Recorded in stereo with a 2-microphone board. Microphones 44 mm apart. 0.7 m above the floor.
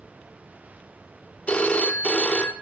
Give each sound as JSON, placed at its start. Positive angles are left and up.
{"t": 1.5, "sound": "a phone ringing", "side_deg": 30, "distance_m": 0.8}